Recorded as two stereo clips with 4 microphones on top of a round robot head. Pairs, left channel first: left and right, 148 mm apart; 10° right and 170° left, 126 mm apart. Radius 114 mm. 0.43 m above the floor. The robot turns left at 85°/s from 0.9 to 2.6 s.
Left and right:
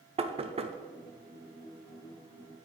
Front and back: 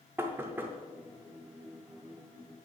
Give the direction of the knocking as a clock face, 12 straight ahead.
4 o'clock.